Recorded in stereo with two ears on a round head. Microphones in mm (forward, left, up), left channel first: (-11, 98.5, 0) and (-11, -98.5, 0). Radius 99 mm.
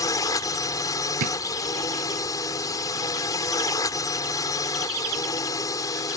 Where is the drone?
15° left (ahead or behind).